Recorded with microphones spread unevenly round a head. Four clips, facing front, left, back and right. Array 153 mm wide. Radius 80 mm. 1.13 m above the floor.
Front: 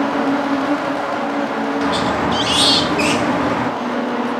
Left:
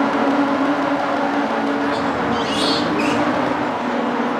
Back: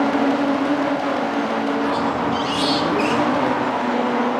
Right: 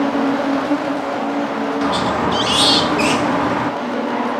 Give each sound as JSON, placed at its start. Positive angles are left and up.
{"t": 1.8, "sound": "a squeak", "azimuth_deg": -35, "distance_m": 1.2}